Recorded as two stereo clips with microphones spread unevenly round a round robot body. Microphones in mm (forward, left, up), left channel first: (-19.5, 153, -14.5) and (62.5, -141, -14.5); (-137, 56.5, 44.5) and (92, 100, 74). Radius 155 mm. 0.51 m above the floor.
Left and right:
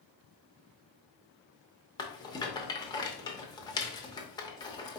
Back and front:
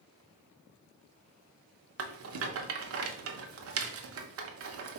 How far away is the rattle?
About 0.8 m.